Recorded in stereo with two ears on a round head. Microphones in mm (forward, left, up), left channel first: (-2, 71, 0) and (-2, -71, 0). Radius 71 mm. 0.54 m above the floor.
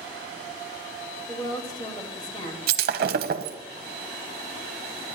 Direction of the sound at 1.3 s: 25° left (ahead or behind).